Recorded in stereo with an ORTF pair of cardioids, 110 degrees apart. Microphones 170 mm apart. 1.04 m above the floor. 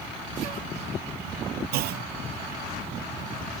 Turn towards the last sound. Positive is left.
turn(degrees=-65)